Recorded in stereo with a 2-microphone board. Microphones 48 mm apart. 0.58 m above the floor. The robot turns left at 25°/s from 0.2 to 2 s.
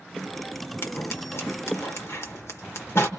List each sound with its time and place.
0.8 s scissors: 60° left (ahead or behind), 1.4 m; by 3.1 s 65° left (ahead or behind), 1.4 m